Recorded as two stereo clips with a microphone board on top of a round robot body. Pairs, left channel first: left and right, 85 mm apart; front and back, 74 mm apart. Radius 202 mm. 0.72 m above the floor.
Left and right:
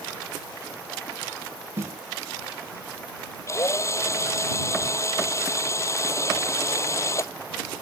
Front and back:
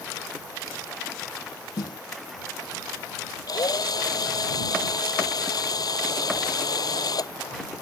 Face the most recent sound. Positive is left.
turn(degrees=35)